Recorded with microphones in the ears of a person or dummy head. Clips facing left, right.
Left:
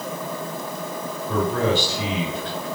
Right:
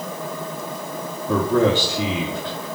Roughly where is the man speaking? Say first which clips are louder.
Right 4 dB; right.